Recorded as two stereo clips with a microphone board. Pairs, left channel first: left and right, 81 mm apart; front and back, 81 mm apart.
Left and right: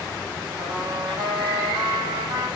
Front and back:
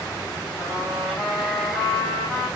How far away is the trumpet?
About 7 m.